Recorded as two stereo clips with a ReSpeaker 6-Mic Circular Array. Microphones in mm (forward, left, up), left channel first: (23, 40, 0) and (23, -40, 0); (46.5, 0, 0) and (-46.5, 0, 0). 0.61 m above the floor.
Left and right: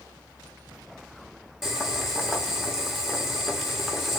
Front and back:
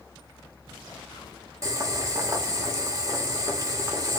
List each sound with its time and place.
1.6 s boiling: 175° right, 1.2 m